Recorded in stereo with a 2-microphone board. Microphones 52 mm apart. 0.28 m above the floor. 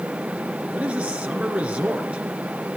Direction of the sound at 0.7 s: 25° right (ahead or behind).